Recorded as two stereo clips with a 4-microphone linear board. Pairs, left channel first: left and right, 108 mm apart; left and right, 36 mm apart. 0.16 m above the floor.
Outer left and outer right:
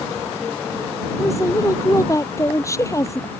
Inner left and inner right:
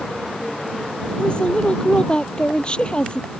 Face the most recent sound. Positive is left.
turn(degrees=30)  # may be behind; listen again after turning